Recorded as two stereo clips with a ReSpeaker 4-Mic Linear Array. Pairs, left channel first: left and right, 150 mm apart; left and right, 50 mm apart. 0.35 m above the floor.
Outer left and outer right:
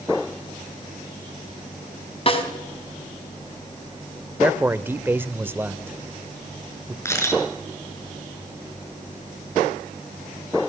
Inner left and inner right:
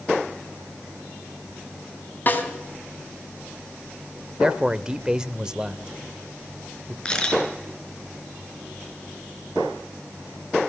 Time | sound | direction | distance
2.3 | a snare drum | 40° left (ahead or behind) | 3.5 m
4.4 | a man speaking | 15° right (ahead or behind) | 0.9 m
7.0 | a camera shutter | 20° left (ahead or behind) | 4.5 m